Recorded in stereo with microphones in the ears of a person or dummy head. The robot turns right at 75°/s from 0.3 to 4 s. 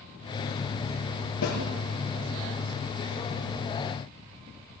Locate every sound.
1.4 s a snare drum: 80° left, 5.5 m; by 1.6 s 70° left (ahead or behind), 5.5 m